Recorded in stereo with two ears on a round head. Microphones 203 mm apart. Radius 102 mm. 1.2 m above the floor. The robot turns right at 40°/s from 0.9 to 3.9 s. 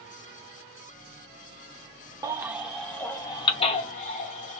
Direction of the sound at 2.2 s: 15° right (ahead or behind).